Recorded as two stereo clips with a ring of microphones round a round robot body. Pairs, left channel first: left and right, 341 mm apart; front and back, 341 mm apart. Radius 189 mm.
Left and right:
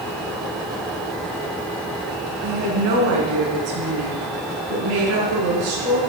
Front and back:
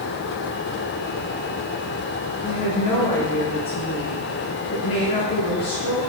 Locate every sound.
2.4 s a woman speaking: 75° right, 5 m